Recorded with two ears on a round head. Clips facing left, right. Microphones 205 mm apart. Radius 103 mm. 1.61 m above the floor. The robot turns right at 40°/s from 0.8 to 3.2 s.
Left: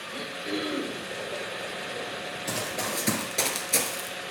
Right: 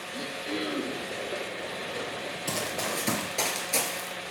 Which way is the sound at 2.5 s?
5° right (ahead or behind).